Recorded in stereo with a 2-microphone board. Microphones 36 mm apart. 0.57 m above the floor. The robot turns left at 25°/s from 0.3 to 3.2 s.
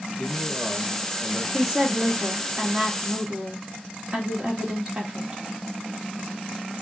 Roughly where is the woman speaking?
Ahead right.